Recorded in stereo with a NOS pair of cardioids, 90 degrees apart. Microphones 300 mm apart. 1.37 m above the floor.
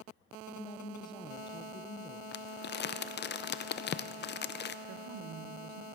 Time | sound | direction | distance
0.5 | a woman speaking | 15° left | 0.7 m
2.3 | crumpling | 35° left | 0.5 m
4.9 | a woman speaking | 55° right | 1.1 m